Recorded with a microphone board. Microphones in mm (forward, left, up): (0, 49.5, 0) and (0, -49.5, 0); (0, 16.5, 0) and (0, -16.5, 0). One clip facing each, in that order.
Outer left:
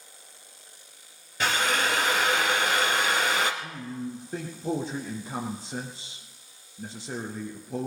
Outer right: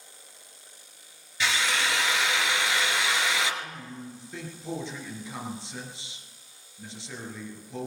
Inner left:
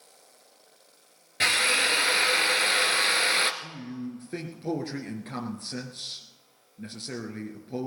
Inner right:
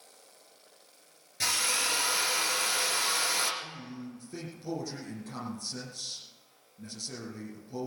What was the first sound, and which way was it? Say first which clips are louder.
A drill: outer left 2 dB, inner left 7 dB; 50° left (ahead or behind).